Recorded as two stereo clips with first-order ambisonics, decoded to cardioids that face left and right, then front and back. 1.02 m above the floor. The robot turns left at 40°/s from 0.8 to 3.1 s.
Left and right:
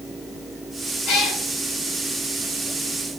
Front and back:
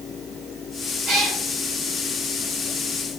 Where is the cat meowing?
130° left, 2 m; by 1.4 s 115° left, 2 m.